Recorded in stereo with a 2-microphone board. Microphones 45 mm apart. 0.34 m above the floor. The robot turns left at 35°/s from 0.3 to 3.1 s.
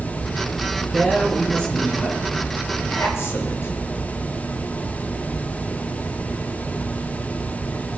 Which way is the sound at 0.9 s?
175° right.